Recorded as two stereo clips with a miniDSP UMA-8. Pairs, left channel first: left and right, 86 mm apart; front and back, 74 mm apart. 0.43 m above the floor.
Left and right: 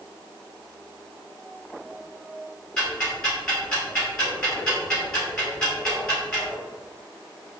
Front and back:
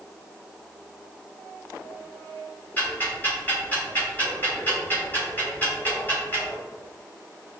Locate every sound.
2.8 s ticking: 20° left, 1.5 m